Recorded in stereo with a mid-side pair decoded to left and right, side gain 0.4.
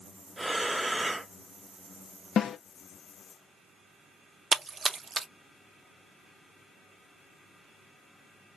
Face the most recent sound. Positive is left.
turn(degrees=-45)